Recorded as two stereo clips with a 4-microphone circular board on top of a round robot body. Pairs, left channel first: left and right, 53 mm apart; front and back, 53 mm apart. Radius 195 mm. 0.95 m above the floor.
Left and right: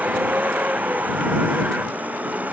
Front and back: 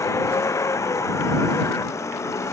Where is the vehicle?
30° right.